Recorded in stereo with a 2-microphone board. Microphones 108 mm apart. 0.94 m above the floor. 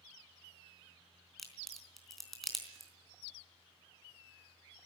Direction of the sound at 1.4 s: Centre (ahead or behind).